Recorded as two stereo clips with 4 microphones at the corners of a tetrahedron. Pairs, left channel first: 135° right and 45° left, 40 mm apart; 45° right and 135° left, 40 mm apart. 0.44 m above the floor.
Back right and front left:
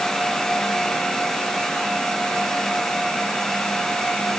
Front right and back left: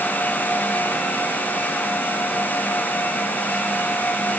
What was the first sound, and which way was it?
Only background noise.